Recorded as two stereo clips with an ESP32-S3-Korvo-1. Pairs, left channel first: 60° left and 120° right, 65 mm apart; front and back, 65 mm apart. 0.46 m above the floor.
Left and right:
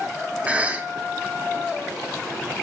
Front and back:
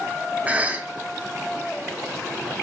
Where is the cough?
155° right, 0.8 m.